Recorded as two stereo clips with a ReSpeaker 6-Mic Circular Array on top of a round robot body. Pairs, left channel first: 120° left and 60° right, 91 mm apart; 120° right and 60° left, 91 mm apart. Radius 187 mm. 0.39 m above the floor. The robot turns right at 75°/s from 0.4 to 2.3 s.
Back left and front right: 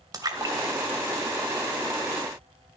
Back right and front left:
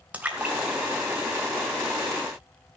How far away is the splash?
About 2.5 m.